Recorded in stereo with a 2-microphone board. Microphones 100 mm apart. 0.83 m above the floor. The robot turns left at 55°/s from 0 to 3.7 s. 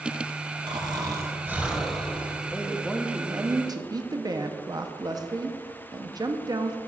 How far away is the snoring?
About 1.0 m.